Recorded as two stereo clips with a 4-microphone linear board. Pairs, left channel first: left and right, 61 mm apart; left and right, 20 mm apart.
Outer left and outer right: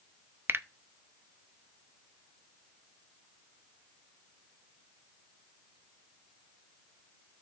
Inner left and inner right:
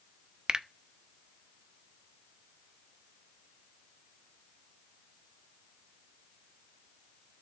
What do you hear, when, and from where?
0.5 s a finger snap: 40° right (ahead or behind), 0.5 m